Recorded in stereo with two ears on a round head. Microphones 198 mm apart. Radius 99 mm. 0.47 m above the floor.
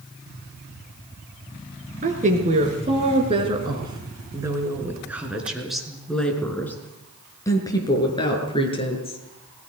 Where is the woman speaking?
35° right (ahead or behind), 6 m; by 9.2 s 30° left (ahead or behind), 6.5 m.